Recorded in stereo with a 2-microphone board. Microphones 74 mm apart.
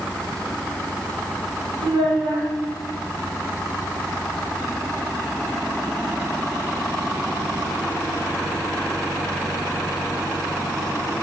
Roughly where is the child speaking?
Right.